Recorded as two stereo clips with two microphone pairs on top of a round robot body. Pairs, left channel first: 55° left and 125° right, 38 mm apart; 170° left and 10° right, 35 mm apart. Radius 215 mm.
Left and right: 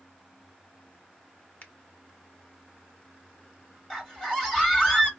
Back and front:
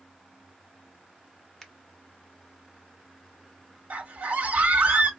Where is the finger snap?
90° left, 1.3 m.